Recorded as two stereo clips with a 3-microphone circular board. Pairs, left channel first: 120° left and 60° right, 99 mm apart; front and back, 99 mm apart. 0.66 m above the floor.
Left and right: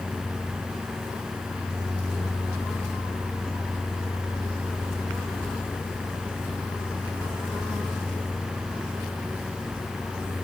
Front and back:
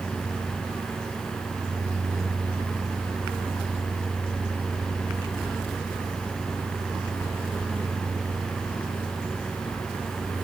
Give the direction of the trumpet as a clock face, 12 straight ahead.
I don't hear a trumpet.